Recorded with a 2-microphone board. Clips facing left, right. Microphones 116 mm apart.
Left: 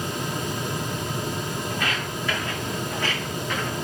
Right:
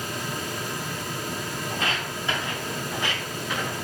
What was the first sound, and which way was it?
Footsteps, 30° right (ahead or behind).